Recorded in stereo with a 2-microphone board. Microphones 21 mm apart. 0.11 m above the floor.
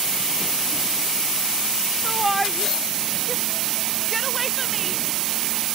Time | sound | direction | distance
2.0 | a shout | centre (ahead or behind) | ?